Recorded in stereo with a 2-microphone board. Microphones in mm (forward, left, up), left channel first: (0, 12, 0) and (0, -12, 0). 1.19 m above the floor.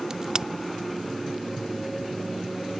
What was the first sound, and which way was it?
A crack, 25° right (ahead or behind).